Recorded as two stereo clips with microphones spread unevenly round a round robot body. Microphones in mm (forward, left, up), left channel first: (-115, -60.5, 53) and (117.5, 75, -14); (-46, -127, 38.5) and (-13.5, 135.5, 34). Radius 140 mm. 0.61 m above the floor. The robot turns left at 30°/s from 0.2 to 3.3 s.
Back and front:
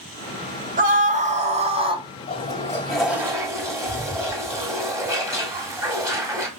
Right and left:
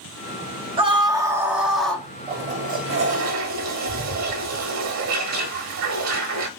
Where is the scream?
25° left, 1.2 m; by 2.1 s 15° right, 1.2 m.